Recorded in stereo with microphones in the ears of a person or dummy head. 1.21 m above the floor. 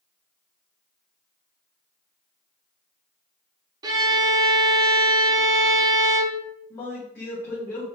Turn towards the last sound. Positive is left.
turn(degrees=10)  # may be behind; listen again after turning